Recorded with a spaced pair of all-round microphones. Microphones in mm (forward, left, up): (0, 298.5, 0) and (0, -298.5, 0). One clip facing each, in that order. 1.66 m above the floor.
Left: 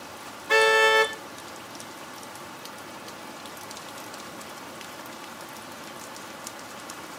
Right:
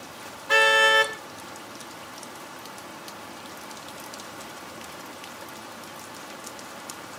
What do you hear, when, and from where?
0.5 s a car horn: 35° right (ahead or behind), 2.5 m